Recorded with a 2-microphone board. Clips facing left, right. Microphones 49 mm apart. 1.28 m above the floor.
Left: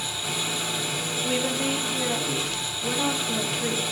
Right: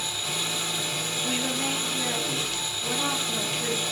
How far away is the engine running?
About 2 m.